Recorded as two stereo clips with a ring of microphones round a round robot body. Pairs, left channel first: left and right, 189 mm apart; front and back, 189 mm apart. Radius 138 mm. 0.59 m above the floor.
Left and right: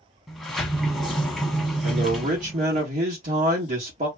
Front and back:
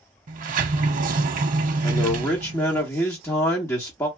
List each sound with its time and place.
0.3 s a sliding door: straight behind, 0.5 m
1.8 s a man speaking: 70° right, 1.4 m